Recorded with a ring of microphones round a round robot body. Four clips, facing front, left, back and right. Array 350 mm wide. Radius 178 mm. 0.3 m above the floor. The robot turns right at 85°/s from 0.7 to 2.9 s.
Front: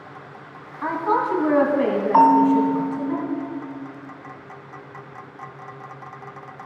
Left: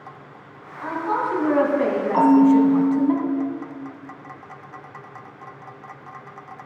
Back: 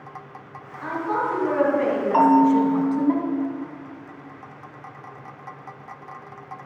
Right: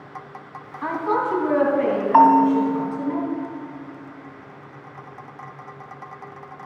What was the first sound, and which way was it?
A woman speaking, 35° right.